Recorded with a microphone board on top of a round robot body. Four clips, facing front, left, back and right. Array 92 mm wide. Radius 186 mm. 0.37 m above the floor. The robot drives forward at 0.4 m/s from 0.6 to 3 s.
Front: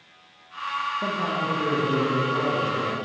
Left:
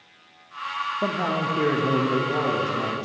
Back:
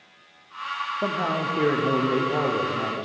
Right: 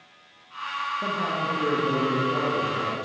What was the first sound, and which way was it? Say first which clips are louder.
A man speaking: left 4 dB, back 1 dB; 135° left.